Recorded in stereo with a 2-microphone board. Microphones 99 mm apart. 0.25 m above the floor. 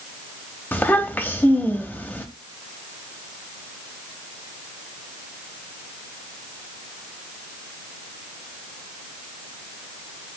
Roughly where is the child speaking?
Left.